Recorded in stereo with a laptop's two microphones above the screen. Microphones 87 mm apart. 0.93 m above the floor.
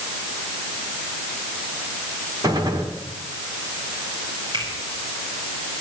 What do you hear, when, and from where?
2.4 s a gunshot: 50° right (ahead or behind), 2.0 m
4.5 s a finger snap: 60° right (ahead or behind), 6.5 m